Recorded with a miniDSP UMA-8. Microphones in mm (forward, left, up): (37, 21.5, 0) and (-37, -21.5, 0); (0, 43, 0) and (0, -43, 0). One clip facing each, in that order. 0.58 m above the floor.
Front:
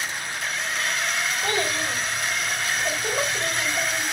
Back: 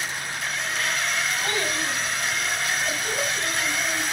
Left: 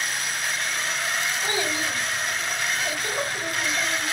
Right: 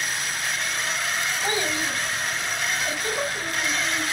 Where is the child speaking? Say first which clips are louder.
Front 1 dB, right 1 dB; 15° left, 3.5 m.